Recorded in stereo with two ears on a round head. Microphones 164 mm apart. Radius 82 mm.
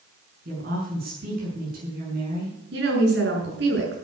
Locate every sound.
0.5 s a woman speaking: 50° right (ahead or behind), 6 m
2.7 s a woman speaking: 65° right (ahead or behind), 7 m